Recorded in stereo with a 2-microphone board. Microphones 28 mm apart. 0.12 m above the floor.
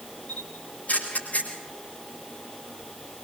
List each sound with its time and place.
0.3 s a camera shutter: 60° left (ahead or behind), 7.5 m